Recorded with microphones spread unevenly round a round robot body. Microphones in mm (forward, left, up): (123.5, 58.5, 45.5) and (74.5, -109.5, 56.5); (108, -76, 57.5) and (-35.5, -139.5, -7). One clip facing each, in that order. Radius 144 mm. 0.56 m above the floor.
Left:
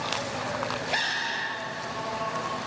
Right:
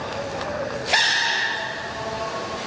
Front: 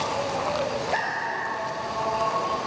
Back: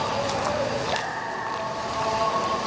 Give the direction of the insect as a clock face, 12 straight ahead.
2 o'clock.